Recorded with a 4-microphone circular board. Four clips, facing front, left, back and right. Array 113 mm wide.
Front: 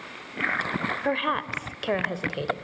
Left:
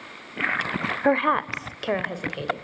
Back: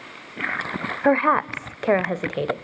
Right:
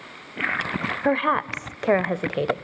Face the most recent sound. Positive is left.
turn(degrees=-120)